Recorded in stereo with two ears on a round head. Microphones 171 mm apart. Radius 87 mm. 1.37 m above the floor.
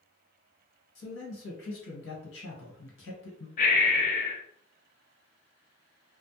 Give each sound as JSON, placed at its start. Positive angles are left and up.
{"t": 0.9, "sound": "a man speaking", "side_deg": 70, "distance_m": 1.3}
{"t": 3.6, "sound": "breathing", "side_deg": 45, "distance_m": 0.7}